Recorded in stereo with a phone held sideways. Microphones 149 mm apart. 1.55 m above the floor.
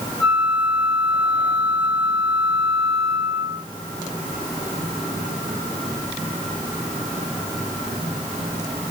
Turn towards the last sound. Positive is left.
turn(degrees=35)  # may be behind; listen again after turning